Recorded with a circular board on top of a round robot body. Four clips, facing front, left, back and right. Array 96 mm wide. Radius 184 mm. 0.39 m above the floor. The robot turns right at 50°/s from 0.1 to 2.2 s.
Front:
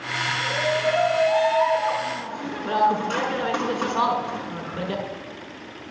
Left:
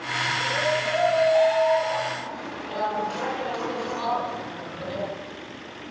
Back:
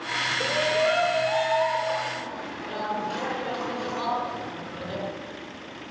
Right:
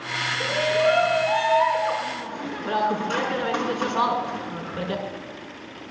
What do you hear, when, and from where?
0.4 s a shout: 130° right, 6.5 m; by 5.0 s 40° right, 6.5 m